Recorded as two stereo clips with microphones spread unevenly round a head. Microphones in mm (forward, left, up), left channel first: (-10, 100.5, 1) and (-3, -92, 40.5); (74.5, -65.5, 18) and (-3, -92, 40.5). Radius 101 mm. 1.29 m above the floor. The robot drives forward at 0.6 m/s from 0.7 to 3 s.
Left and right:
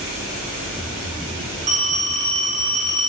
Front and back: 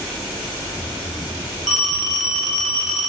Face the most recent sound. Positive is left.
turn(degrees=-80)